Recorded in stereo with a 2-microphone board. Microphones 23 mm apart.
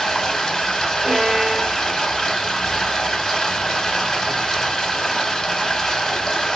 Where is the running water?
30° left (ahead or behind), 1.0 m.